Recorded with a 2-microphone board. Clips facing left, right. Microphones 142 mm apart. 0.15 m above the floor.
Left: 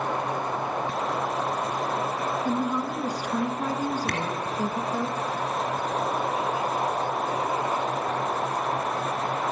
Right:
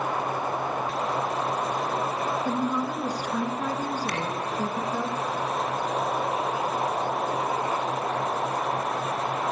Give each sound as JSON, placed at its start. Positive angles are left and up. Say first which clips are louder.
{"t": 2.5, "sound": "a woman speaking", "louder": "left 1 dB", "side_deg": 10, "distance_m": 1.7}
{"t": 4.1, "sound": "a camera shutter", "louder": "left 1 dB", "side_deg": 65, "distance_m": 2.0}